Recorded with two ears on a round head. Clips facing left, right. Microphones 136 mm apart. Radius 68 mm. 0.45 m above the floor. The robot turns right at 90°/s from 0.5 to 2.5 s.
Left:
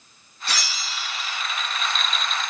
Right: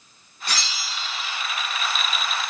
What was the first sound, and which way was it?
A bell, 35° right.